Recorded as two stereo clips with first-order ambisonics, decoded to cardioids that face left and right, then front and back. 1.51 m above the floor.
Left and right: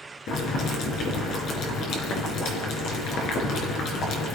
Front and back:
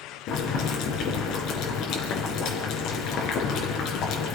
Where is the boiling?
45° left, 4 m.